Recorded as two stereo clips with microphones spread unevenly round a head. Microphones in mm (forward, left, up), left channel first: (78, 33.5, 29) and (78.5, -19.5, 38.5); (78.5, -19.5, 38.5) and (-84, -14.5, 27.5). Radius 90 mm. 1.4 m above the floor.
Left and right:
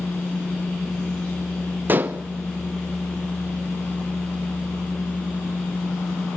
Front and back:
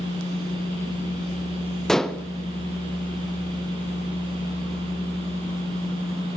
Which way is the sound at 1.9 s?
85° right.